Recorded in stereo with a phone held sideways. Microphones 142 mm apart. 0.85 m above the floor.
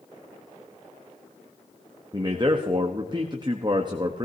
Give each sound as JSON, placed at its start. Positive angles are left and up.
{"t": 2.1, "sound": "a man speaking", "side_deg": -30, "distance_m": 0.9}